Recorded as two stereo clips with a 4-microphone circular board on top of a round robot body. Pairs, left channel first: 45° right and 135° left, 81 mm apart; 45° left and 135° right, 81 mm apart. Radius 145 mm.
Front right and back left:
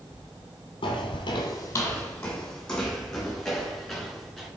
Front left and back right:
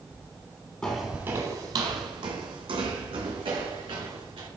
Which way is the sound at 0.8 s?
30° right.